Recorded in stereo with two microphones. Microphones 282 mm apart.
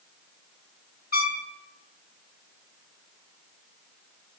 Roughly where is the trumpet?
Left.